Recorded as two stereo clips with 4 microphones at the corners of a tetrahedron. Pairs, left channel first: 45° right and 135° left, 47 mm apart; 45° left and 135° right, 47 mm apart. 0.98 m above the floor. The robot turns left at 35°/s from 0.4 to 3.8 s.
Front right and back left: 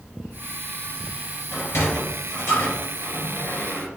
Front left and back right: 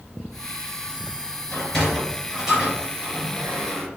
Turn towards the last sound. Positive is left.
turn(degrees=-95)